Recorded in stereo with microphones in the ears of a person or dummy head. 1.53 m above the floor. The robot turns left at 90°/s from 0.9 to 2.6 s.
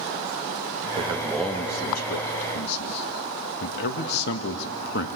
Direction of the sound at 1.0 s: 145° right.